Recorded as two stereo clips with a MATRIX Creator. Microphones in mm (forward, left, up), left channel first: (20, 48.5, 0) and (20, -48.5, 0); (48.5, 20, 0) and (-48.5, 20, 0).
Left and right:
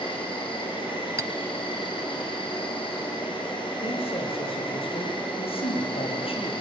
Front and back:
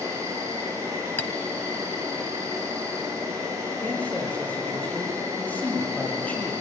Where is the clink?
65° right, 0.9 m.